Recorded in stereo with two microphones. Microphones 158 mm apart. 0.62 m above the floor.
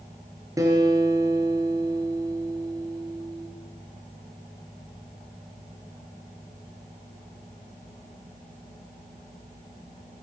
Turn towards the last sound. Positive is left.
turn(degrees=-20)  # may be behind; listen again after turning